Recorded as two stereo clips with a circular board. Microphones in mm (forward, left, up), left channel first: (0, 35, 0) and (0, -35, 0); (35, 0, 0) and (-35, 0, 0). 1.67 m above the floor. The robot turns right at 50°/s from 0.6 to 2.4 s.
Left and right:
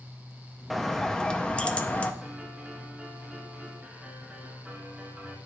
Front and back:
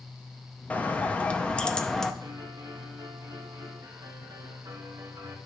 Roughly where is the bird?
Ahead.